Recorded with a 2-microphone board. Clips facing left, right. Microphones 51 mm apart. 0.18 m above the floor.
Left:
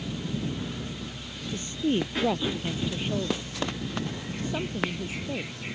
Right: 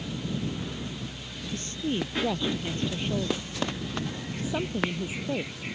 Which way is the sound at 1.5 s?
20° left (ahead or behind).